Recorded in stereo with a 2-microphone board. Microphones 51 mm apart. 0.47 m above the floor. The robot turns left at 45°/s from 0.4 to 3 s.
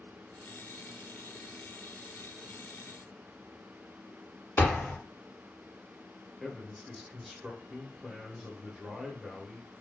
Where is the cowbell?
No cowbell in this recording.